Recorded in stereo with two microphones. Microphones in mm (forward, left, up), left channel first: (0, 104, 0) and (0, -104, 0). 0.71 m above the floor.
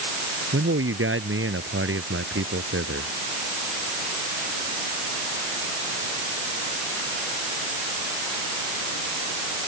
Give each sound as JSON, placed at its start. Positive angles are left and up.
{"t": 0.5, "sound": "a man speaking", "side_deg": -85}